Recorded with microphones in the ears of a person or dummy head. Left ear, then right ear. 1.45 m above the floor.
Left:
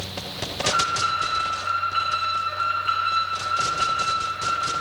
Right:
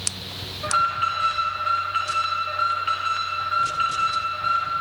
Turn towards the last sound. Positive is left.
turn(degrees=-30)  # may be behind; listen again after turning